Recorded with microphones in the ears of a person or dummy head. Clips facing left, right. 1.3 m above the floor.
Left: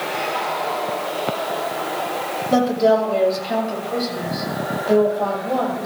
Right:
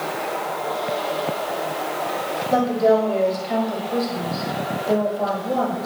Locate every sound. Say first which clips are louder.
2.5 s a woman speaking: left 1 dB; 20° left (ahead or behind), 7 m; by 5.9 s 20° right (ahead or behind), 8 m